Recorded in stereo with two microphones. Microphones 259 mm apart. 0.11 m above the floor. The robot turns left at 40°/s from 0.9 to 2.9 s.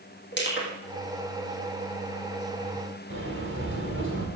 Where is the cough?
No cough in this recording.